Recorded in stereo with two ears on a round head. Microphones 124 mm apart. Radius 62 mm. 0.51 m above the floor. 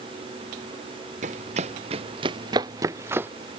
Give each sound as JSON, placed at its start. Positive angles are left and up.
{"t": 1.2, "sound": "running footsteps", "side_deg": -55}